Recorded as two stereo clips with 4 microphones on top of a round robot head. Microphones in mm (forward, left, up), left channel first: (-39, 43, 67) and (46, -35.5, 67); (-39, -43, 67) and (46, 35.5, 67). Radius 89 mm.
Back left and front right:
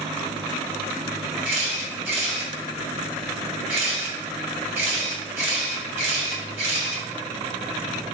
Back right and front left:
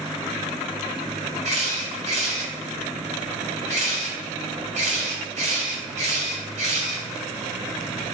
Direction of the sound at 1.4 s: 30° left.